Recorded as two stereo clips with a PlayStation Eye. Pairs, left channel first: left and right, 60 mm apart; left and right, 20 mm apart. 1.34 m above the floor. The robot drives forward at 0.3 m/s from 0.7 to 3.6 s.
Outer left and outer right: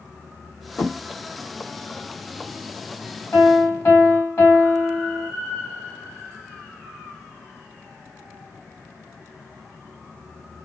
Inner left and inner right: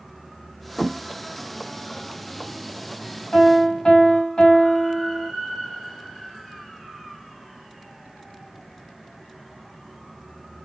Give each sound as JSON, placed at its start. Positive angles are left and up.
{"t": 0.8, "sound": "a thud", "side_deg": 35, "distance_m": 2.0}
{"t": 3.3, "sound": "a piano", "side_deg": 35, "distance_m": 1.6}